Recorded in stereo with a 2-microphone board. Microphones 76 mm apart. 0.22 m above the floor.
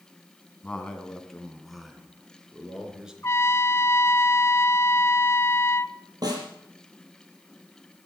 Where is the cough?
I don't hear a cough.